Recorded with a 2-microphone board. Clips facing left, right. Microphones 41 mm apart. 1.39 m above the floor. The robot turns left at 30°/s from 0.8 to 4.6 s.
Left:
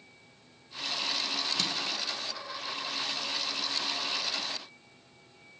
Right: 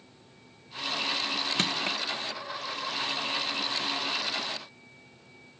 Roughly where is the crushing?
Right.